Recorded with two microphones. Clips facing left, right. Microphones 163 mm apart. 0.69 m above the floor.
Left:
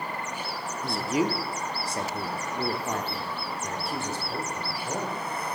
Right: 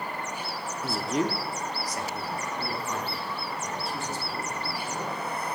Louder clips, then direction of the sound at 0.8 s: Left 1 dB; 5° right (ahead or behind).